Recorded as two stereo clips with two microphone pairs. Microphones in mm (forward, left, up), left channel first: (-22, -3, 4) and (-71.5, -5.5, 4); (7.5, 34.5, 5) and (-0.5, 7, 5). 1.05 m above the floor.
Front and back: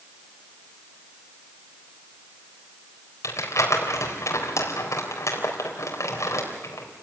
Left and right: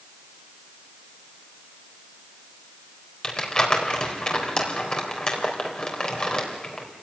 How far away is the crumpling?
About 3.5 m.